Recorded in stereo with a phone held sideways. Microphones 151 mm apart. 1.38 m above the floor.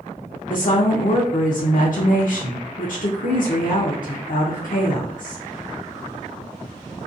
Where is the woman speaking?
70° left (ahead or behind), 0.5 m.